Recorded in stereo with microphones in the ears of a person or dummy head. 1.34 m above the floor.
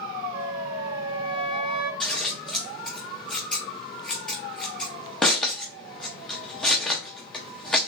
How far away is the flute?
About 0.8 m.